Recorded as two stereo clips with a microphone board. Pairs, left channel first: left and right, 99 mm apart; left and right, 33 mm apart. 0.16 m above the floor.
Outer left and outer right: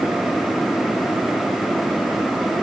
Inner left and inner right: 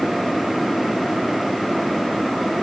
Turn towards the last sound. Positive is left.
No sound to turn to.